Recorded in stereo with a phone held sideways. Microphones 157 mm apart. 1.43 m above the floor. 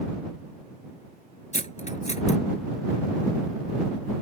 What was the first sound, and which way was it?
Cutlery clinking, 45° left (ahead or behind).